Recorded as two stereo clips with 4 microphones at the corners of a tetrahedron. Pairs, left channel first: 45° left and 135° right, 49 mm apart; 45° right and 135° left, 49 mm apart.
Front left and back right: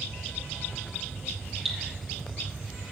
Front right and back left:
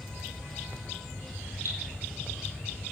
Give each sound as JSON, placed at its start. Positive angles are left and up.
{"t": 1.6, "sound": "dripping", "azimuth_deg": 135, "distance_m": 4.0}